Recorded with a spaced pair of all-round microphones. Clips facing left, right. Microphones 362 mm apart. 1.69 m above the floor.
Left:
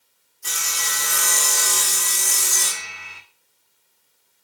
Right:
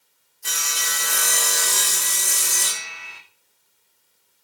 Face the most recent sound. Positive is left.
turn(degrees=10)  # may be behind; listen again after turning